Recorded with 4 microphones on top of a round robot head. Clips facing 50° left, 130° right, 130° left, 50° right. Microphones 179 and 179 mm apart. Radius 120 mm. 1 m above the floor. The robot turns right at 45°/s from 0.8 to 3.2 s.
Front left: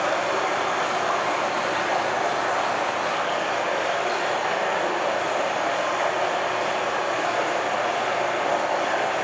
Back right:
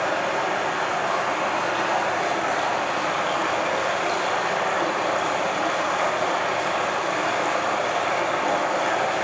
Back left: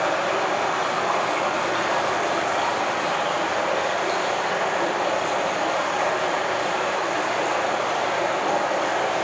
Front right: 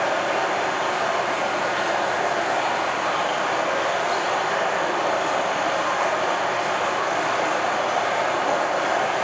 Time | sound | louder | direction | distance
0.0 | running water | even, even | 80° left | 4 m